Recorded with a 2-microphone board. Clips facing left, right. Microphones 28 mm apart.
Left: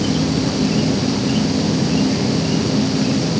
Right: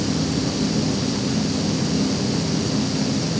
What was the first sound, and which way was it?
An insect, 60° left (ahead or behind).